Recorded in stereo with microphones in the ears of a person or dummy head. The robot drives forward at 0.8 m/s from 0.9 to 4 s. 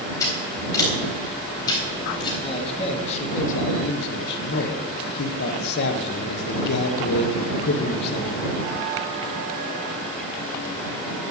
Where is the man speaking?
30° left (ahead or behind), 2 m; by 8.5 s 55° left (ahead or behind), 1.2 m.